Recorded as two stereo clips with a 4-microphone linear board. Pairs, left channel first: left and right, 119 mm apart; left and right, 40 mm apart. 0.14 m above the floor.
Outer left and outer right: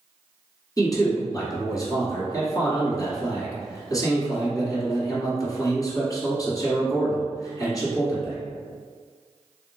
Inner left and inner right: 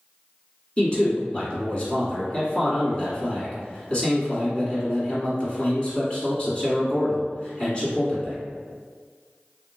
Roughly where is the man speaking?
Left.